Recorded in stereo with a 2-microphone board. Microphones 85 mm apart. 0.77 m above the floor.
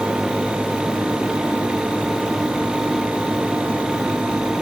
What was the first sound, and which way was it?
Only background noise.